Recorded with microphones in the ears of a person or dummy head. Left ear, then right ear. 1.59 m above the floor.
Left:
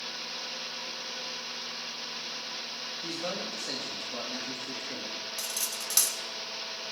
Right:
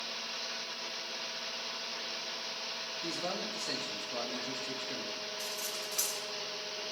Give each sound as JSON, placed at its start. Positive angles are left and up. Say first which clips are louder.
{"t": 3.0, "sound": "a man speaking", "louder": "left 2 dB", "side_deg": 0, "distance_m": 3.0}
{"t": 5.4, "sound": "cutlery clinking", "louder": "left 3 dB", "side_deg": 65, "distance_m": 2.0}